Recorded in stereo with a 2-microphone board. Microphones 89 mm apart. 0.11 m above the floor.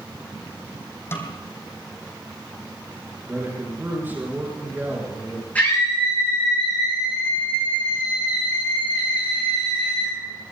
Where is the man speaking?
25° right (ahead or behind), 4.5 m.